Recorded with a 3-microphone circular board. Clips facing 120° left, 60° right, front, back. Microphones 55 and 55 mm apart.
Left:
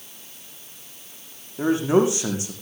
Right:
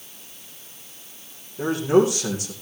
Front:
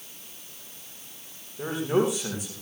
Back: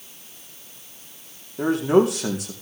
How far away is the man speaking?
About 6.5 m.